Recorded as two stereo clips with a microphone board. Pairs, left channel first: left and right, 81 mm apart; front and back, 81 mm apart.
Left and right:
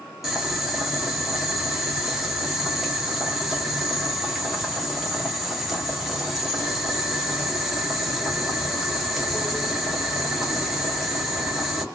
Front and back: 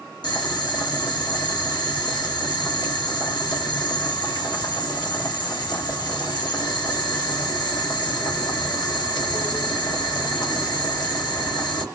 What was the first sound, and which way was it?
Boiling, 5° right.